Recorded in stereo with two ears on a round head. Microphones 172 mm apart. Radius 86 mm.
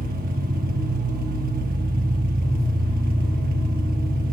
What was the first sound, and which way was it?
An engine running, 50° right (ahead or behind).